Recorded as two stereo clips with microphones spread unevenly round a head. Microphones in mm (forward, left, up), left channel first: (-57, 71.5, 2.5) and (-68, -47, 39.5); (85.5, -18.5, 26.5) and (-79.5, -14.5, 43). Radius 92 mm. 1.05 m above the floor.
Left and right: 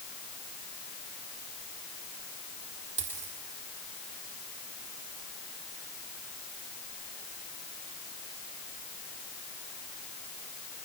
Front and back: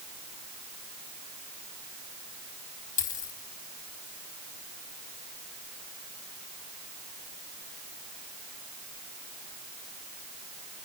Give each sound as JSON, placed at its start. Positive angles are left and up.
{"t": 3.0, "sound": "a dropped coin", "azimuth_deg": -50, "distance_m": 4.0}